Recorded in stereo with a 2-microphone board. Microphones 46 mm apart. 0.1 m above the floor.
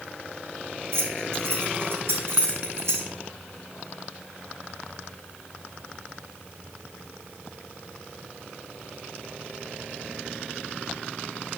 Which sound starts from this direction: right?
Keys jangling, at 0.9 s.